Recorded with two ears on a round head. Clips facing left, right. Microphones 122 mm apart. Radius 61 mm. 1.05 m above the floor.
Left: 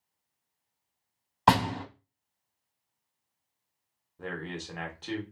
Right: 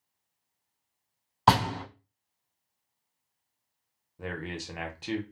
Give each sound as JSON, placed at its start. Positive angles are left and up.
{"t": 1.5, "sound": "a door slam", "side_deg": 0, "distance_m": 2.0}
{"t": 4.2, "sound": "a man speaking", "side_deg": -10, "distance_m": 0.7}